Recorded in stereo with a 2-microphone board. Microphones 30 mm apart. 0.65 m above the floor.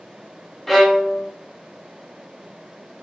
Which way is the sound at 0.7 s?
5° left (ahead or behind).